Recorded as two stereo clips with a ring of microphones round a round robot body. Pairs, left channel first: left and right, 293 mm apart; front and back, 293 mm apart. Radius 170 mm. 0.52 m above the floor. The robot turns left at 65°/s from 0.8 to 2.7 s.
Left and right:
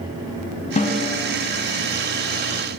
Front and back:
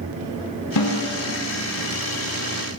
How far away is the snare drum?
About 1.2 m.